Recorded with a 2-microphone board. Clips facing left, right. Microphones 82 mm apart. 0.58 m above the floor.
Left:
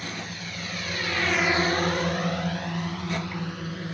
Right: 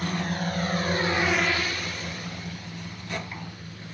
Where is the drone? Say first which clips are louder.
Right 7 dB; 55° right (ahead or behind); by 4.0 s 70° left (ahead or behind).